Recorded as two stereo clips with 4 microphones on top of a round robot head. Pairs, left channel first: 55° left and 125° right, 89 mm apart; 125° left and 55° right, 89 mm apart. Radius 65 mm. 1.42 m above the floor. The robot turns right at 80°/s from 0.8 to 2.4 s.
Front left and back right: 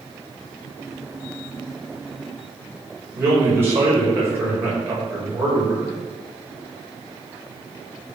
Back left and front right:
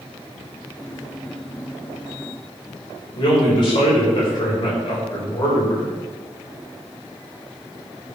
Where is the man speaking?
170° left, 5.5 m.